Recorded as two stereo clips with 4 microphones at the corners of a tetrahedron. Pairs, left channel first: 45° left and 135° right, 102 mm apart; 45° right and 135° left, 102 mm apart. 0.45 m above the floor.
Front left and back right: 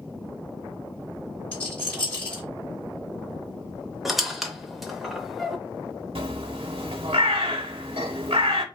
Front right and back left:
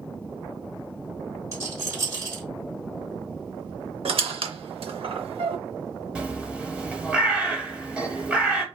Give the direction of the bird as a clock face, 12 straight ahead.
5 o'clock.